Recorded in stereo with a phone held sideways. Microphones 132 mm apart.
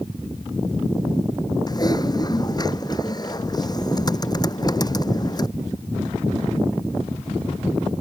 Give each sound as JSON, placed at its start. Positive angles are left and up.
{"t": 1.7, "sound": "typing on a keyboard", "side_deg": 30}